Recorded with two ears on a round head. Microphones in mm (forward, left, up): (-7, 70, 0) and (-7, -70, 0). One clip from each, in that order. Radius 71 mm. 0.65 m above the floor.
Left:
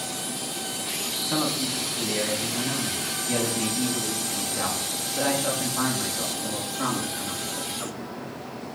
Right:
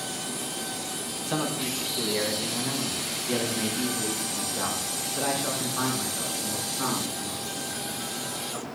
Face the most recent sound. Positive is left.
turn(degrees=-15)  # may be behind; listen again after turning